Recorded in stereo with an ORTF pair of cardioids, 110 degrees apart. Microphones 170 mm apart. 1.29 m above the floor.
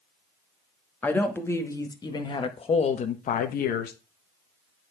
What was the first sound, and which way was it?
A woman speaking, 10° left.